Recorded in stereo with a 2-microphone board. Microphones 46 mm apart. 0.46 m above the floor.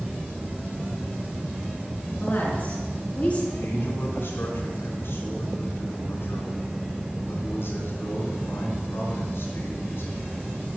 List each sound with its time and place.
2.2 s a woman speaking: 40° left (ahead or behind), 4.5 m; by 3.4 s 30° left (ahead or behind), 4 m
3.5 s a man speaking: 60° left (ahead or behind), 4.5 m